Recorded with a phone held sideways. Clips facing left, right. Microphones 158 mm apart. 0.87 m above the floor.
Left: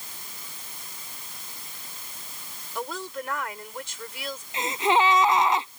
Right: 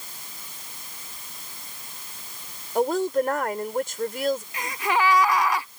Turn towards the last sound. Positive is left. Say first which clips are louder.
# left 3 dB
turn(degrees=25)  # may be behind; listen again after turning